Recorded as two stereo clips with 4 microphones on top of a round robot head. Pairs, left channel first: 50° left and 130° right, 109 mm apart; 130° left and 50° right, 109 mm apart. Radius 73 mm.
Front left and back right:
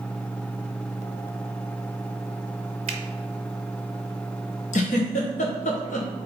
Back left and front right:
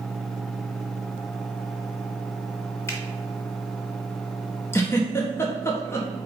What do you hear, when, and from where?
2.9 s a finger snap: 165° right, 0.7 m
4.7 s a giggle: 65° left, 1.2 m